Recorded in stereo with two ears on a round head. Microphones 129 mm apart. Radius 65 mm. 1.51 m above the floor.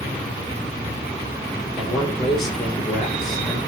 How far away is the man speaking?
About 4 m.